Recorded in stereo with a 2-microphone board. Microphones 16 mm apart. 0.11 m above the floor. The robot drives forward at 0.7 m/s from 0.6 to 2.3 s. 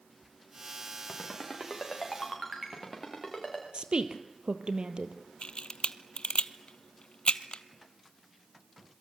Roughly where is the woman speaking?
Right.